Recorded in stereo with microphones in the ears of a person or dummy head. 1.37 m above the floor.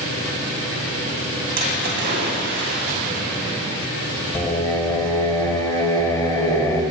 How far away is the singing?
About 1.2 m.